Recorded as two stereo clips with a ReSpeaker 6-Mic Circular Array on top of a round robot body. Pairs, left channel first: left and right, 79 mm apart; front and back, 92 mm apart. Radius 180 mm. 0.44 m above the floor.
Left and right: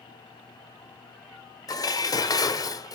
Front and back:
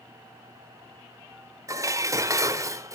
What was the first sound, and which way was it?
Dishes clattering, 125° left.